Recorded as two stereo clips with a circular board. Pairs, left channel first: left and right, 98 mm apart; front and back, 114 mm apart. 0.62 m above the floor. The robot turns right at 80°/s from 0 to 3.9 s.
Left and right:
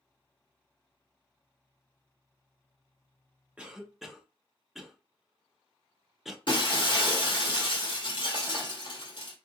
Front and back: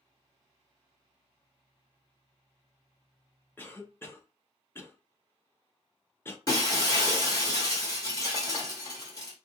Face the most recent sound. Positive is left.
turn(degrees=55)